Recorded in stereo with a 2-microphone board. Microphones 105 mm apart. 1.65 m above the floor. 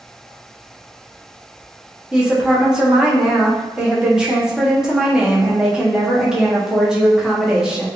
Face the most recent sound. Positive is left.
turn(degrees=-5)  # may be behind; listen again after turning